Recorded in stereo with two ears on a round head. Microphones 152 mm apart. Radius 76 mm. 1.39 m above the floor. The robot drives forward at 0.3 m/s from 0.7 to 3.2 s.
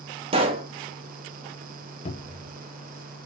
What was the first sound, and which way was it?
A pop, 35° right (ahead or behind).